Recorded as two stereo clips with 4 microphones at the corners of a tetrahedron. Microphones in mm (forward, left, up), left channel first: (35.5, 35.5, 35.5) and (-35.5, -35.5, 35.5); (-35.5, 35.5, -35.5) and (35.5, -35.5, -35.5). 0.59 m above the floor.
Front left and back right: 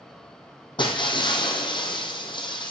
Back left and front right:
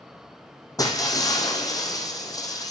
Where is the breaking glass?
80° left, 1.6 m.